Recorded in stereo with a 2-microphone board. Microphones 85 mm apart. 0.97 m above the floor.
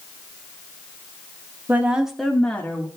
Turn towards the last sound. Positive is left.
turn(degrees=25)  # may be behind; listen again after turning